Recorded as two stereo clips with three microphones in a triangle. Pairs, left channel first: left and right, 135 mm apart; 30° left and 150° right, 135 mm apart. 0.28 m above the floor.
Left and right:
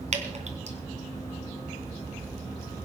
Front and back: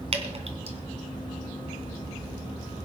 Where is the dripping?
115° right, 2.5 m.